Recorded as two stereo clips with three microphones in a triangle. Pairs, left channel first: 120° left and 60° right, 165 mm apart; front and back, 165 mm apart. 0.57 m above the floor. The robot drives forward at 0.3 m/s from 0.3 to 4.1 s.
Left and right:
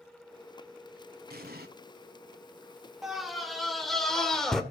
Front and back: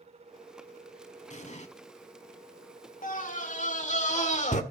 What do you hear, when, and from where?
1.3 s an explosion: 40° right, 1.3 m; by 1.7 s 45° right, 1.3 m
3.0 s a scream: 30° left, 2.5 m; by 4.6 s 35° left, 2 m